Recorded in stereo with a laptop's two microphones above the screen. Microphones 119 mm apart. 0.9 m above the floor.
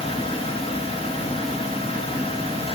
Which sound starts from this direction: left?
A fan, at 0.0 s.